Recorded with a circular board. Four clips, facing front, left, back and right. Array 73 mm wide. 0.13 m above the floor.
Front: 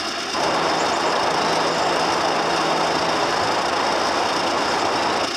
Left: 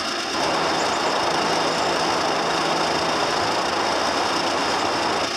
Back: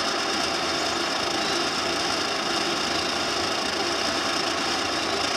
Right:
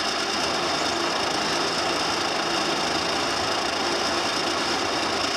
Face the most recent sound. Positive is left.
turn(degrees=30)